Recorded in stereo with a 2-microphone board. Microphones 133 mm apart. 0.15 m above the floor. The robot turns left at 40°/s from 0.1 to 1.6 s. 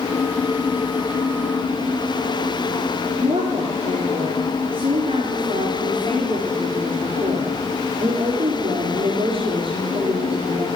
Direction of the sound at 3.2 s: 45° right (ahead or behind).